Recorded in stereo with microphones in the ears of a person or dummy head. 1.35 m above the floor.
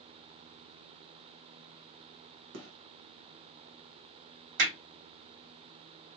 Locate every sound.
2.5 s a gunshot: 75° right (ahead or behind), 0.9 m
4.6 s hammering: 60° right (ahead or behind), 1.8 m